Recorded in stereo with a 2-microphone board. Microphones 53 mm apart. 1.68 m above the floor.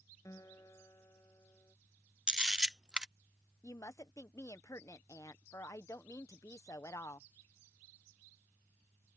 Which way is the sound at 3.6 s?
75° left (ahead or behind).